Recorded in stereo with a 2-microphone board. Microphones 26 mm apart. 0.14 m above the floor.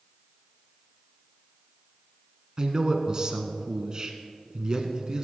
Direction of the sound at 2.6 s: 30° right (ahead or behind).